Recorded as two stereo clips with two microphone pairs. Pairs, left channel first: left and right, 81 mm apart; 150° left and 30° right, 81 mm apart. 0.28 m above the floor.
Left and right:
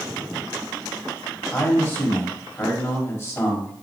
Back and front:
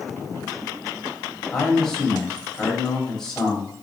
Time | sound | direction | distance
1.5 | a man speaking | 75° left | 1.6 m